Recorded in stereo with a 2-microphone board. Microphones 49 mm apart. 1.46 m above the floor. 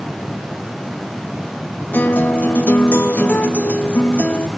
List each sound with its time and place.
1.9 s a guitar: 40° left (ahead or behind), 2.5 m